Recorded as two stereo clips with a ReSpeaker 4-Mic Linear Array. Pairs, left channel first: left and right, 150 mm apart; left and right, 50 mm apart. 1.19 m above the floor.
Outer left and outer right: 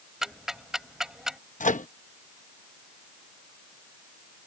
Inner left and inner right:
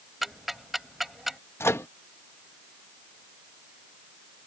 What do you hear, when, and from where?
0.2 s ticking: 5° right (ahead or behind)
1.6 s a microwave: 60° left (ahead or behind)